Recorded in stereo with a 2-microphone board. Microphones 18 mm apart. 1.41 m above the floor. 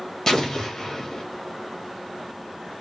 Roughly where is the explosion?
Left.